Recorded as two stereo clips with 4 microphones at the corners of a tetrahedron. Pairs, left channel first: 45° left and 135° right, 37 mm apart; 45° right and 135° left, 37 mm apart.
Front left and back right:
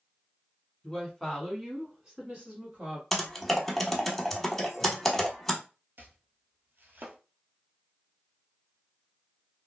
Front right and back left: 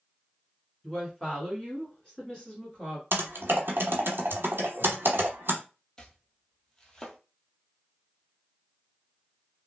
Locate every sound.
0.8 s a woman speaking: 5° right, 1.3 m; by 3.0 s 105° right, 1.6 m
3.1 s typing on a keyboard: 130° left, 0.8 m
6.0 s chopping: 120° right, 0.7 m